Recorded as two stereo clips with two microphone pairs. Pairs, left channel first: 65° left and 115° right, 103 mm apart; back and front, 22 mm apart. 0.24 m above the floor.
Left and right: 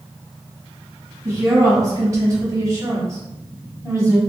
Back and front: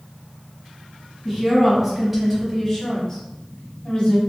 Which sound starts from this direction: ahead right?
A woman speaking, at 1.2 s.